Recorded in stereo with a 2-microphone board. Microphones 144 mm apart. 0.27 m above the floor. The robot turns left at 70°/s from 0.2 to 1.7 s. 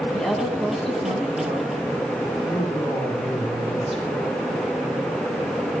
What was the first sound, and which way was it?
A woman speaking, 5° left.